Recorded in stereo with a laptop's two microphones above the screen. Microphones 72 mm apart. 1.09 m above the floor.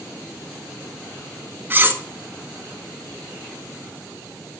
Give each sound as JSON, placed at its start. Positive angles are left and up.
{"t": 1.7, "sound": "cutlery clinking", "side_deg": -25, "distance_m": 0.6}